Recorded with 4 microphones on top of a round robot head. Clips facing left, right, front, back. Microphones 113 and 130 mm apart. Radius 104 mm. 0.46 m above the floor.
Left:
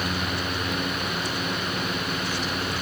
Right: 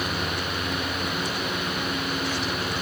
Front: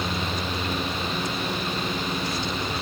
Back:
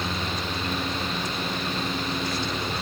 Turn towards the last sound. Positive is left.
No sound to turn to.